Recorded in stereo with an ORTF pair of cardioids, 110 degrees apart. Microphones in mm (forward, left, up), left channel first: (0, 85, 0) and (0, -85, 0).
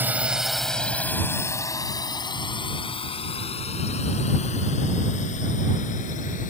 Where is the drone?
10° right; by 6.5 s 50° left.